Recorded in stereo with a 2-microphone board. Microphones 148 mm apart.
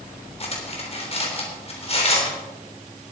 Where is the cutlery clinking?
40° left (ahead or behind), 3.5 m.